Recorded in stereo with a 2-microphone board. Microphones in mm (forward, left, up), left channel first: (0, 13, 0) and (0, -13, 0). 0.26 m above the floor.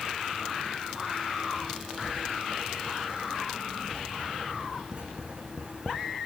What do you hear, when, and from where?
1.9 s writing: 40° right (ahead or behind), 5 m